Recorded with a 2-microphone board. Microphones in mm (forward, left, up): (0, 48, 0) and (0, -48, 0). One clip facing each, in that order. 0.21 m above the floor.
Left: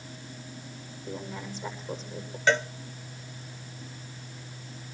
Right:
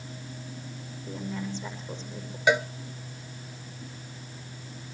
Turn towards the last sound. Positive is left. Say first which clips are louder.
# right 1 dB
turn(degrees=-10)  # may be behind; listen again after turning